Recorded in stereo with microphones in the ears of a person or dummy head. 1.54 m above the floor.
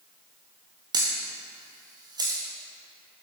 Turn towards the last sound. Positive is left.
turn(degrees=-15)  # may be behind; listen again after turning